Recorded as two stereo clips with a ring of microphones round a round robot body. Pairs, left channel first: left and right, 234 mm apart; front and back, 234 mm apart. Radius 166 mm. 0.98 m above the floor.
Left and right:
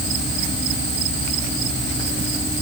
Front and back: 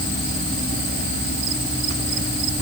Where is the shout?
I don't hear a shout.